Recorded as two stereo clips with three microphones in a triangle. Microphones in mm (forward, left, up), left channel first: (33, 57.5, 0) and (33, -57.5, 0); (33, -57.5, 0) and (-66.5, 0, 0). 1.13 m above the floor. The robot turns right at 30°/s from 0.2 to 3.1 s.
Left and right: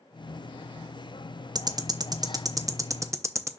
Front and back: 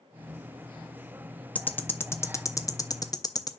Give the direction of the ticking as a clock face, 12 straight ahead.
3 o'clock.